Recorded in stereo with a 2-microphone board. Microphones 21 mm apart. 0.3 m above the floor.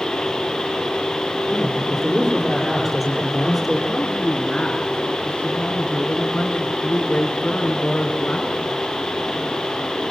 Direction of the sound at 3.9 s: 65° left (ahead or behind).